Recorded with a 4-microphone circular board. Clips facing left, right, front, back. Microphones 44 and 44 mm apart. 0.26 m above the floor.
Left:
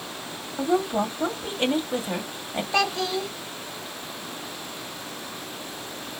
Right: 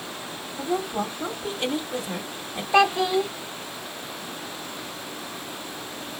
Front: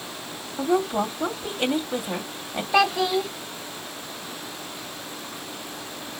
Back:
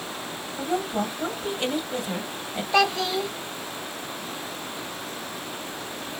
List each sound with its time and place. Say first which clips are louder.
0.6 s a woman speaking: left 4 dB, front 4 dB; 60° left, 1.7 m
2.7 s a child speaking: right 6 dB, front 2 dB; 75° right, 0.5 m